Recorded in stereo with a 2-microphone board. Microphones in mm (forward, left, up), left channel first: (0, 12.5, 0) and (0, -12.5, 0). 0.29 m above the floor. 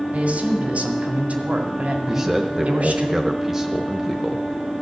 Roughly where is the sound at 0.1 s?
Right.